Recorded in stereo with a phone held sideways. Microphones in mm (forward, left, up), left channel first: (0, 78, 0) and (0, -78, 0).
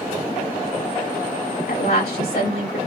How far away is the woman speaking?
About 2.5 m.